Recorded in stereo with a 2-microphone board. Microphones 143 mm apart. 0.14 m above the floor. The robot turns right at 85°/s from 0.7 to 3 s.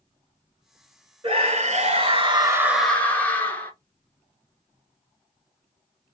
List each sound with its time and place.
1.2 s a scream: 135° right, 1.8 m; by 3.7 s 15° left, 1.8 m